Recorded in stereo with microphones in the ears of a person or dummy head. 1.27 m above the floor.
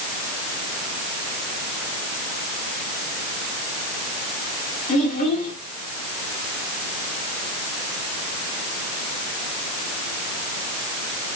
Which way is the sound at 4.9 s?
40° left (ahead or behind).